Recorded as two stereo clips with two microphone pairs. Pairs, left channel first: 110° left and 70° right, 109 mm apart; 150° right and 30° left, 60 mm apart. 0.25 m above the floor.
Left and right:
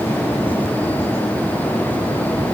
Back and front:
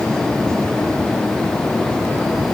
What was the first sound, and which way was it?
Only background noise.